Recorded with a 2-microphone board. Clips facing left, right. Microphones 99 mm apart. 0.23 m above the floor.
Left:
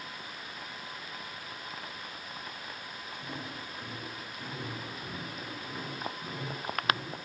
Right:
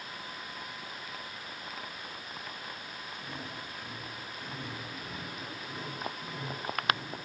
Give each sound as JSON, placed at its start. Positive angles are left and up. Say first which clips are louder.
{"t": 3.1, "sound": "footsteps", "louder": "left 2 dB", "side_deg": 15, "distance_m": 7.0}